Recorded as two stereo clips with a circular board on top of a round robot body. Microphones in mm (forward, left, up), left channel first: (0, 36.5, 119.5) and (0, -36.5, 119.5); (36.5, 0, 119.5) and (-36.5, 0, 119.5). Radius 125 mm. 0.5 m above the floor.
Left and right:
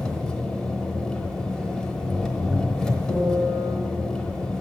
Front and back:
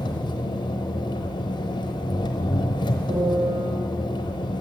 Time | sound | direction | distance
0.0 | an engine running | 5° left | 1.1 m
3.1 | a piano | 160° left | 4 m